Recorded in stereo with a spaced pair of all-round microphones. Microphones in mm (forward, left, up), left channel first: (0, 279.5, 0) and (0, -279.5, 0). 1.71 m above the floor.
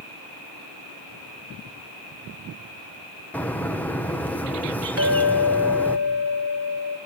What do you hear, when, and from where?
3.3 s a bird: 5° left (ahead or behind), 1.1 m
5.0 s a clink: 25° right (ahead or behind), 2.5 m